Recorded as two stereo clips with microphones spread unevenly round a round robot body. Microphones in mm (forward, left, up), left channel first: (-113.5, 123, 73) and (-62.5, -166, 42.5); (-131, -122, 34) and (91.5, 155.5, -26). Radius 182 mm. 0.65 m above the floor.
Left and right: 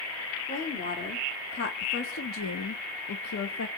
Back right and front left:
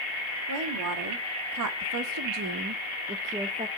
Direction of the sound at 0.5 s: 30° left.